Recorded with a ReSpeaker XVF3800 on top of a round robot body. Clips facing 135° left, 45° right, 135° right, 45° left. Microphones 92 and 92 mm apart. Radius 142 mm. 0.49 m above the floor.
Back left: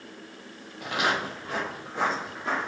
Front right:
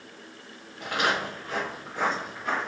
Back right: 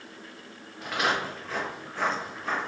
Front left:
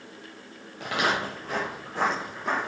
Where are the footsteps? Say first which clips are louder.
Even, front left 1 dB; 45° left, 0.7 m; by 2.7 s 75° left, 1.4 m.